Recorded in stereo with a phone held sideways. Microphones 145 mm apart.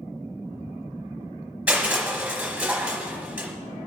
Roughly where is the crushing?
Centre.